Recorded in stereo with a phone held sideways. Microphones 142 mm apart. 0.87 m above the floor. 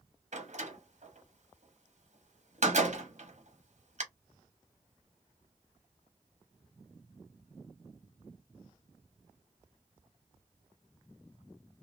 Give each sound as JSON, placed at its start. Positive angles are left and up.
{"t": 0.3, "sound": "a door slam", "side_deg": -55, "distance_m": 0.8}